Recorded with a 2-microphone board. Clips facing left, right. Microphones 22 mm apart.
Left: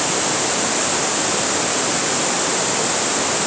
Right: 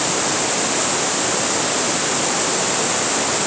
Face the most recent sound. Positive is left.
No sound to turn to.